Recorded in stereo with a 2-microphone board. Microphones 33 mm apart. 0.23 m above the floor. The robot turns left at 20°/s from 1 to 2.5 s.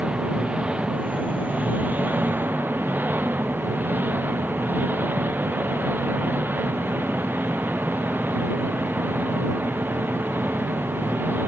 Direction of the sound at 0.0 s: 35° right.